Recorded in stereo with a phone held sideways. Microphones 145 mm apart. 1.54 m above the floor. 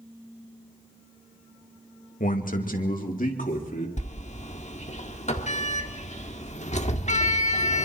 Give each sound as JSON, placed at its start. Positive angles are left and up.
{"t": 2.2, "sound": "a man speaking", "side_deg": 70, "distance_m": 2.0}
{"t": 4.0, "sound": "a sliding door", "side_deg": 55, "distance_m": 1.5}